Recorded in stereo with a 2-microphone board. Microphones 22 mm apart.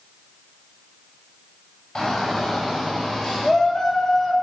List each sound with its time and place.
1.9 s a shout: 15° left (ahead or behind), 7 m; by 4.3 s 5° left (ahead or behind), 5.5 m